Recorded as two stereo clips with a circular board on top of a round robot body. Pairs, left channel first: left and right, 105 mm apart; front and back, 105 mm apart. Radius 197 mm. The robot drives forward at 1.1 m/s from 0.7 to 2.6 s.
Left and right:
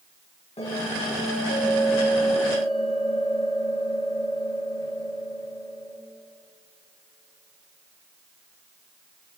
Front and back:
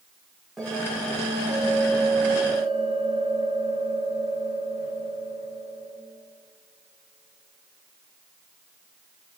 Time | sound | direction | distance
0.6 | a bell | 90° left | 5.5 m